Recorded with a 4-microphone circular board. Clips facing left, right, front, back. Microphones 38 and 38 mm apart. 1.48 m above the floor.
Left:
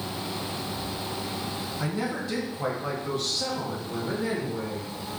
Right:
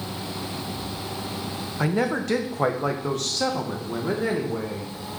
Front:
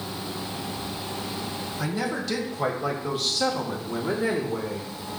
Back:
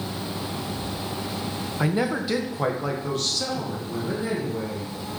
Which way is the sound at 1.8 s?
125° right.